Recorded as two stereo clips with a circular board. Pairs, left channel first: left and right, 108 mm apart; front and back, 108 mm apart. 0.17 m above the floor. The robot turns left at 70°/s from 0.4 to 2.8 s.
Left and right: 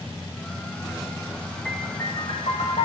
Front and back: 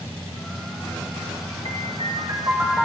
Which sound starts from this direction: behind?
A piano, at 1.6 s.